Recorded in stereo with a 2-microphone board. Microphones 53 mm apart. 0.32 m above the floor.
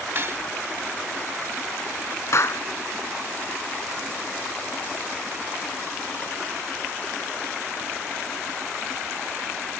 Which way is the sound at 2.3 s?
55° left (ahead or behind).